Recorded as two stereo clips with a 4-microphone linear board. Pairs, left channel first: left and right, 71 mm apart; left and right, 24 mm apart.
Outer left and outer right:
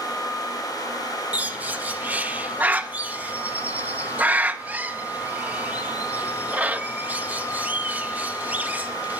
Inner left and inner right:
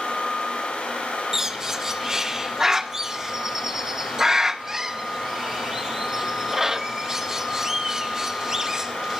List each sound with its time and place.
1.3 s a bird: 20° right (ahead or behind), 1.1 m